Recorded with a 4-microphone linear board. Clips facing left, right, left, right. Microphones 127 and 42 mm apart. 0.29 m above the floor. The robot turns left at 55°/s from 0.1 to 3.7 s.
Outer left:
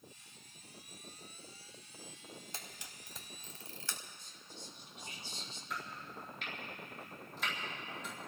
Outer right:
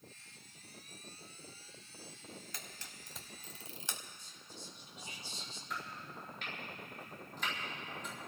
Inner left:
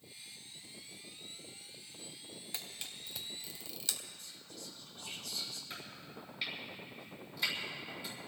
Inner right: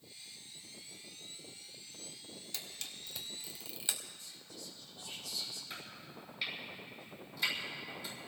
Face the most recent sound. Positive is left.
turn(degrees=5)  # may be behind; listen again after turning